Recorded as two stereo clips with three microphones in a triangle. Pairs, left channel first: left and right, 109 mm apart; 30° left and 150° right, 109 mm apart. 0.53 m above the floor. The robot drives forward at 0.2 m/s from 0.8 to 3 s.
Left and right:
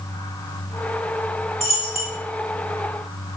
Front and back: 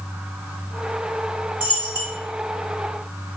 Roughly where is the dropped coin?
Left.